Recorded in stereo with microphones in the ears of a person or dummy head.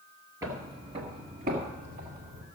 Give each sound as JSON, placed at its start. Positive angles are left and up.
{"t": 0.4, "sound": "footsteps", "side_deg": -20, "distance_m": 1.5}